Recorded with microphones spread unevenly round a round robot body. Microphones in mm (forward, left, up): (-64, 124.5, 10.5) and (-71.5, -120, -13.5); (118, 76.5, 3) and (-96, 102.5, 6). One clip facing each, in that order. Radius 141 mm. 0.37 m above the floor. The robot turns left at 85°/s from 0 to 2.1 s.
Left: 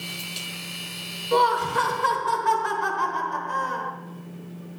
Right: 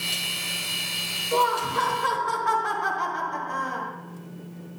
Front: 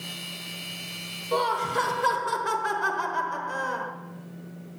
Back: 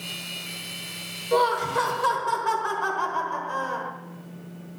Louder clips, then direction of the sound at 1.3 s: Left 3 dB, back 4 dB; 115° left.